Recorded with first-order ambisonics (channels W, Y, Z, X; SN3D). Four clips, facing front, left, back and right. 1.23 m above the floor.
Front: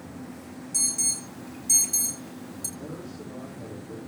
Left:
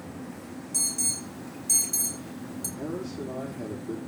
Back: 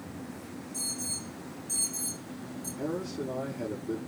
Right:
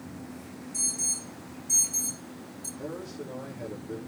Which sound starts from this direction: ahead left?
An alarm, at 0.7 s.